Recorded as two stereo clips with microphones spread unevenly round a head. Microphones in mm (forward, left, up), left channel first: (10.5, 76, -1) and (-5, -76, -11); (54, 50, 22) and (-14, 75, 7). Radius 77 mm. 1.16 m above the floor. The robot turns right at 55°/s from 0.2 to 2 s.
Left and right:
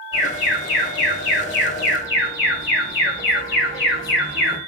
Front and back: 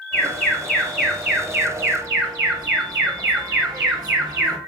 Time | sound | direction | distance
0.1 | an alarm | 30° left | 3 m